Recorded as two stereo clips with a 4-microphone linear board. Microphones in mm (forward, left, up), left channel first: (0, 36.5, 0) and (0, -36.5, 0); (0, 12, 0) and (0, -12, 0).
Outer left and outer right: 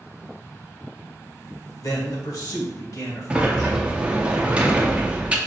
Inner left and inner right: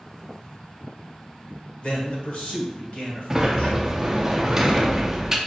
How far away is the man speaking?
About 1.4 m.